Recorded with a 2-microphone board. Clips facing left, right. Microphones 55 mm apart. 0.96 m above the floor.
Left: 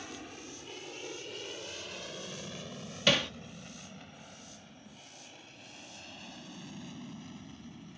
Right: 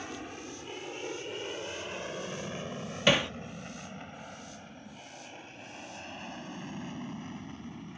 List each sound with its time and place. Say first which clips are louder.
0.0 s an aircraft: right 4 dB; 20° right (ahead or behind); by 8.0 s 40° right (ahead or behind)
3.1 s hammering: right 3 dB; 20° right (ahead or behind)